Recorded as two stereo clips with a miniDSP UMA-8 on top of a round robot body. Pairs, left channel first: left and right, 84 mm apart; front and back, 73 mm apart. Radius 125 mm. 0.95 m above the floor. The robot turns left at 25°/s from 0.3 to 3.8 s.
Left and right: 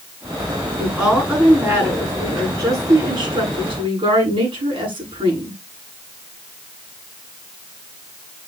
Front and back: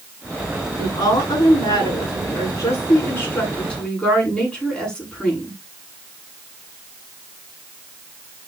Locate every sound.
0.8 s a woman speaking: straight ahead, 9.5 m; by 5.6 s 80° right, 9.5 m